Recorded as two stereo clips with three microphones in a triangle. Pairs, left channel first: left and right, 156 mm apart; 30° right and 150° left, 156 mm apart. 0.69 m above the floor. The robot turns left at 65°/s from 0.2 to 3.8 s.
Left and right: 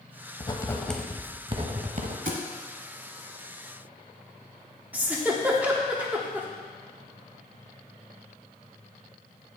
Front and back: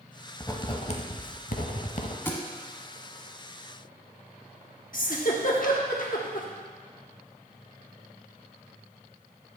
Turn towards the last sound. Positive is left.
turn(degrees=-10)